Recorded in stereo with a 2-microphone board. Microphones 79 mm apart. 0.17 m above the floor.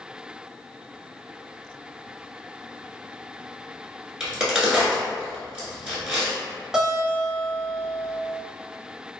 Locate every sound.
4.2 s a crack: 5° right (ahead or behind), 1.3 m
6.7 s a guitar: 5° right (ahead or behind), 0.9 m